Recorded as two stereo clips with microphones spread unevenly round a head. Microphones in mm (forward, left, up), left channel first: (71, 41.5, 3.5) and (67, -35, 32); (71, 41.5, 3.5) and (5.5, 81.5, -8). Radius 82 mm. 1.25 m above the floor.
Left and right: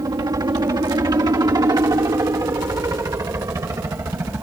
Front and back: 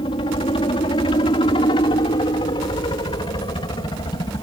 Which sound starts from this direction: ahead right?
A helicopter, at 0.0 s.